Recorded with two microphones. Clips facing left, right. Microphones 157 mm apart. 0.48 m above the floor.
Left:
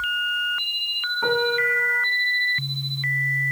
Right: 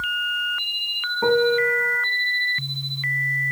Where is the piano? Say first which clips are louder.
Right 5 dB; 35° right (ahead or behind), 0.9 m.